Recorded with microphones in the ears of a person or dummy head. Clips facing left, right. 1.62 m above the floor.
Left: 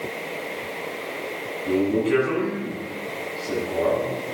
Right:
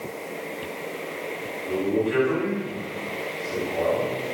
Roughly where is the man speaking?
Left.